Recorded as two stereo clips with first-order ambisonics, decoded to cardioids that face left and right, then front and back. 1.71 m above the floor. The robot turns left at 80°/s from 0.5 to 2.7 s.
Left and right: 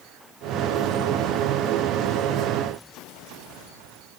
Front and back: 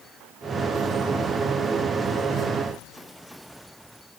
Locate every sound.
Only background noise.